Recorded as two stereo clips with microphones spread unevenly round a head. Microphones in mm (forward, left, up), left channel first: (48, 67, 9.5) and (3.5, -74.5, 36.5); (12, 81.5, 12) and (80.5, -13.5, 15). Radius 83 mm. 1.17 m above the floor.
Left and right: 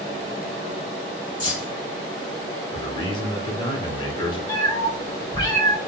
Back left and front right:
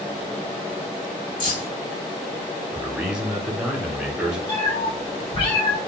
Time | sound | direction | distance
1.4 | keys jangling | 135° left | 1.3 m
2.7 | a man speaking | 30° left | 1.0 m
4.5 | a cat meowing | 140° left | 1.0 m